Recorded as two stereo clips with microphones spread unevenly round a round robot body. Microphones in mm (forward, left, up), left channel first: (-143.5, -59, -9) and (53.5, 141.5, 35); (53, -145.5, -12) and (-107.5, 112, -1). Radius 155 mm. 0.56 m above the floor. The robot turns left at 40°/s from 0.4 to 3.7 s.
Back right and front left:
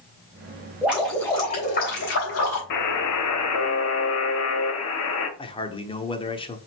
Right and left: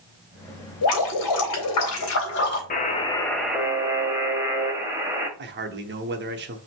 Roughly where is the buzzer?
Behind right.